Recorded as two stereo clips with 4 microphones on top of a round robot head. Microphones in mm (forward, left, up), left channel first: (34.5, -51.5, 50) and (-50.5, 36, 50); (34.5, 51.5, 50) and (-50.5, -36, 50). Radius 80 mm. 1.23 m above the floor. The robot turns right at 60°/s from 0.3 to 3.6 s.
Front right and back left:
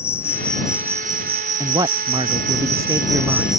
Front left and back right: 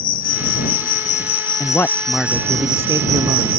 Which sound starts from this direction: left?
A man speaking, at 1.6 s.